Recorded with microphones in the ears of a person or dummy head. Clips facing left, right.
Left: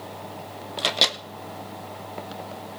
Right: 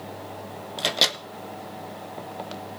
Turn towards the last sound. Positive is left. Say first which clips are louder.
# even
turn(degrees=-5)  # may be behind; listen again after turning